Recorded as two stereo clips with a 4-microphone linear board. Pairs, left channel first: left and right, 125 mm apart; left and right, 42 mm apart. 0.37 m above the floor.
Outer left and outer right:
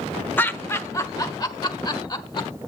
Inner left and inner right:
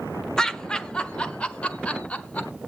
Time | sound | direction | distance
0.4 | laughter | 15° left (ahead or behind) | 1.1 m